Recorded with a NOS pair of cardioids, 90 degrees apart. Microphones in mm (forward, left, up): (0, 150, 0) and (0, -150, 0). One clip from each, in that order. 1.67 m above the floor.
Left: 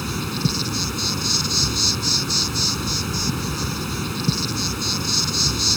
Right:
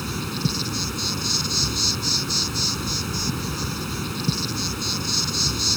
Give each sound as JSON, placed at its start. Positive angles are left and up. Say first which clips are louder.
{"t": 0.0, "sound": "an insect", "louder": "left 2 dB", "azimuth_deg": 20}